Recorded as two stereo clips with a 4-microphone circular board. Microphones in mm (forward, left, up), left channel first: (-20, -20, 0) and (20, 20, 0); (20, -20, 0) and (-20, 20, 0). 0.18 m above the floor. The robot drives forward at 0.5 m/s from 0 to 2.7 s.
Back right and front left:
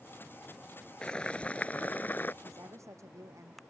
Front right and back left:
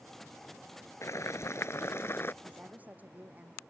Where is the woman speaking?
75° left.